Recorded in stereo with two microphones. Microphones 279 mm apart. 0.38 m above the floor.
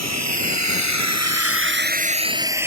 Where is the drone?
70° right (ahead or behind); by 2.7 s 5° right (ahead or behind).